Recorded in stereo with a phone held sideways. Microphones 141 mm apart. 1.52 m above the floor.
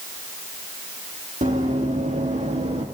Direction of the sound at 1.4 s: 60° right (ahead or behind).